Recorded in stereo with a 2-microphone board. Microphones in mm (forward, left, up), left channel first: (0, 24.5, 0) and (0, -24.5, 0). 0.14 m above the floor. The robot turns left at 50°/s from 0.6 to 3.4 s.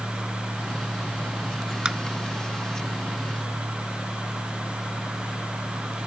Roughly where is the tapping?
Centre.